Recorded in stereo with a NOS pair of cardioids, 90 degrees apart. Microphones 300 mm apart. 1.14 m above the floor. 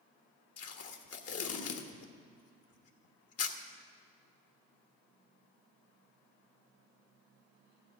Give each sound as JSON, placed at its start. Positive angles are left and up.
{"t": 0.6, "sound": "tape being pulled", "azimuth_deg": 50, "distance_m": 1.3}